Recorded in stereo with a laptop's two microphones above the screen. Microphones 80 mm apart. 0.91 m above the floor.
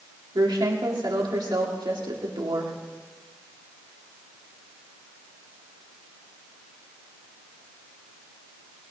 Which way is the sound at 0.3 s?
65° right (ahead or behind).